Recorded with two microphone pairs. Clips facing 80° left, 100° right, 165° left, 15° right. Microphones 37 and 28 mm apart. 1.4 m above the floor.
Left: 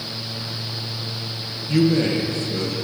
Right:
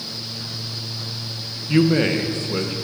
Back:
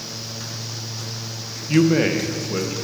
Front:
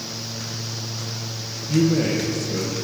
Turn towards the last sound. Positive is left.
turn(degrees=-140)